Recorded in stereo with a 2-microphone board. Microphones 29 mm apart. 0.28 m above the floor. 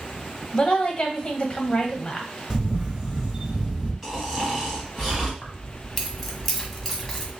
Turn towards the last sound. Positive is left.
turn(degrees=10)  # may be behind; listen again after turning